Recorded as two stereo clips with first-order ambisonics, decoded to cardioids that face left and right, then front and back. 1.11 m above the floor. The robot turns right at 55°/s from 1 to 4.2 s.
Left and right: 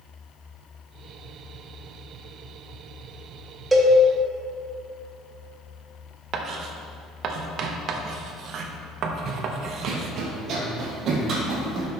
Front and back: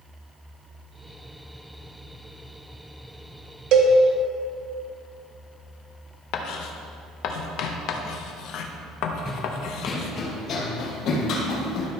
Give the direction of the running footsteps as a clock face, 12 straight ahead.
3 o'clock.